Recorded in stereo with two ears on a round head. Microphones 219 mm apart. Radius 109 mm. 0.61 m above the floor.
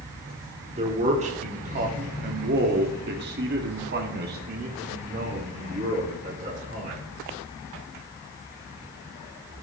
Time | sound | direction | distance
0.8 | a man speaking | 25° right (ahead or behind) | 1.8 m